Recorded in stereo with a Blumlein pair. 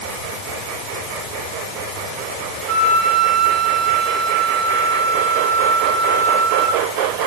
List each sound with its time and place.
2.7 s a flute: 10° right, 3 m